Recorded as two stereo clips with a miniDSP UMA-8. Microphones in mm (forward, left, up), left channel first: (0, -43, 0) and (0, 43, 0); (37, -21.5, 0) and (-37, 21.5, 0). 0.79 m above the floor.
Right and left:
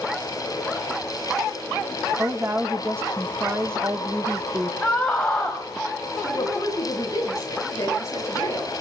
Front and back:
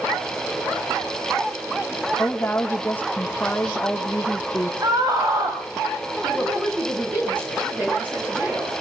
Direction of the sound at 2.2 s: 35° left.